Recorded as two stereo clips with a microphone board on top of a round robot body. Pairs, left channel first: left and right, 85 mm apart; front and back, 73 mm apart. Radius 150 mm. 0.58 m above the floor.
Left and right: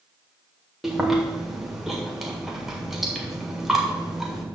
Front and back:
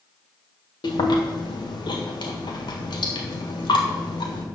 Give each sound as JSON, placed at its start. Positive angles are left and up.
{"t": 0.8, "sound": "chewing", "azimuth_deg": -5, "distance_m": 1.6}